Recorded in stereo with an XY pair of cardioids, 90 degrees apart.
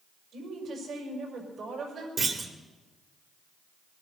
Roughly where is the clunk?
Ahead right.